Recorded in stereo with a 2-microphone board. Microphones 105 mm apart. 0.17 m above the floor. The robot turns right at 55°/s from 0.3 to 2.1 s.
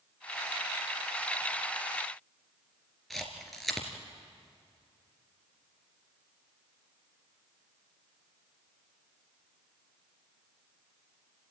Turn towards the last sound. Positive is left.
turn(degrees=0)  # may be behind; listen again after turning